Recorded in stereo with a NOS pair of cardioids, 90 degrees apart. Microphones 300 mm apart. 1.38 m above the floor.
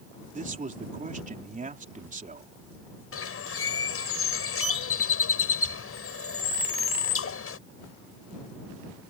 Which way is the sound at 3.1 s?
45° left.